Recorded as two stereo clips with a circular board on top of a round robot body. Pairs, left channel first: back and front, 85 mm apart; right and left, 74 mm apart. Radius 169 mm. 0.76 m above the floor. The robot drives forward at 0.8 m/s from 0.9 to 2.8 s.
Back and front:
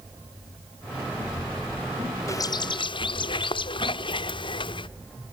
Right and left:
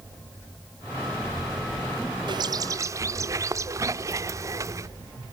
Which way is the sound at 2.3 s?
120° left.